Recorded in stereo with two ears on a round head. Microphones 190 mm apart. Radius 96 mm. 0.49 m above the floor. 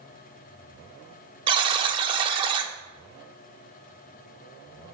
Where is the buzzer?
25° right (ahead or behind), 0.5 m.